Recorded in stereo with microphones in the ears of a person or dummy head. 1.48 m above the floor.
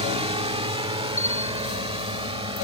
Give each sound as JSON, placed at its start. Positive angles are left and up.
{"t": 0.0, "sound": "a drone", "side_deg": -30}
{"t": 1.2, "sound": "a bell", "side_deg": 40}